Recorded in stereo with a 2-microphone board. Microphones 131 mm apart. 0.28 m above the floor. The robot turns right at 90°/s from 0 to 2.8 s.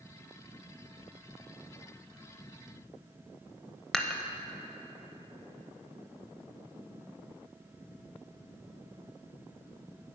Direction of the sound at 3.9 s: 5° left (ahead or behind).